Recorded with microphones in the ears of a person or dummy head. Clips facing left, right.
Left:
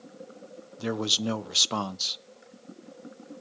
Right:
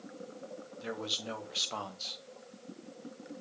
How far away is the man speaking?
About 1.0 m.